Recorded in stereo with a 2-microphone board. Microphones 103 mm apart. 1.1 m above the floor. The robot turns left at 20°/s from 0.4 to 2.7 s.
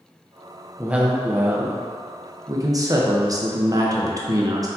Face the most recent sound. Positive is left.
turn(degrees=-50)